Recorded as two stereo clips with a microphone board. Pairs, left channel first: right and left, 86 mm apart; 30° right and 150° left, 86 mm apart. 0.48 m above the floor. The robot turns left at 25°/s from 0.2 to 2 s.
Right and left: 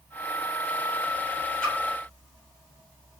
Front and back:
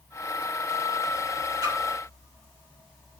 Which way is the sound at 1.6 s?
165° right.